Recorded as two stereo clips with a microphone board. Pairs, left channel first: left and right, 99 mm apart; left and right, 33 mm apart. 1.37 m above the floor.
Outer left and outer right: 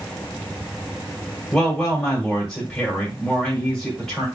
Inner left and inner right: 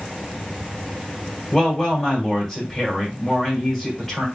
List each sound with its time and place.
1.5 s a woman speaking: 10° left (ahead or behind), 2.0 m